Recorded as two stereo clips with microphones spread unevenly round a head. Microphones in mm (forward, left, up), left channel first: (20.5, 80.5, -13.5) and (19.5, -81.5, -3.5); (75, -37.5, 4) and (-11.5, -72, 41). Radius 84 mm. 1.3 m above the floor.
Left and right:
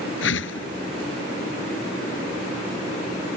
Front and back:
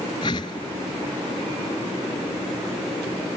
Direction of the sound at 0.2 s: 85° left.